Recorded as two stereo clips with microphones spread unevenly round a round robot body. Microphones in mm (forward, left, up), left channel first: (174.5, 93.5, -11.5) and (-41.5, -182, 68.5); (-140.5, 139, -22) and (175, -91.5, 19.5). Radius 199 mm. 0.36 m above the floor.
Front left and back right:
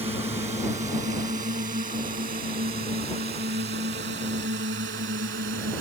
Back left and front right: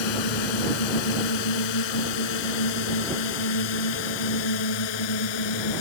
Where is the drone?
155° left; by 5.8 s 170° left.